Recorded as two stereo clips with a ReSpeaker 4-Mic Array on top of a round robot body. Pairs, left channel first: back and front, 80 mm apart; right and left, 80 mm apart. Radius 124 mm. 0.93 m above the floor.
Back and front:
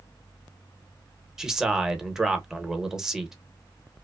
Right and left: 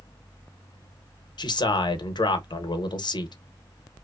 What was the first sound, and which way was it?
A man speaking, 80° right.